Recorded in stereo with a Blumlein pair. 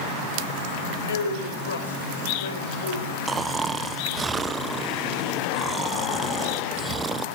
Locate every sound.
0.8 s a man speaking: 65° left, 6 m
3.3 s snoring: 15° right, 1.0 m